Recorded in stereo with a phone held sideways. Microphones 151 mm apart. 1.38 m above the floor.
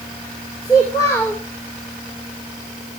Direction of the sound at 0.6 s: 25° left (ahead or behind).